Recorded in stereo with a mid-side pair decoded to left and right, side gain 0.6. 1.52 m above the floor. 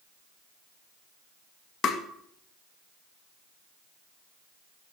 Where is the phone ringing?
No phone ringing in this recording.